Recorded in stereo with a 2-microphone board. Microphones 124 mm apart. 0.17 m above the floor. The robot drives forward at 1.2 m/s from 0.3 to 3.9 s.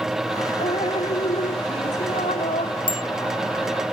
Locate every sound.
0.6 s dripping: 60° left (ahead or behind); by 2.8 s 75° left (ahead or behind)
2.9 s a bicycle bell: 45° left (ahead or behind)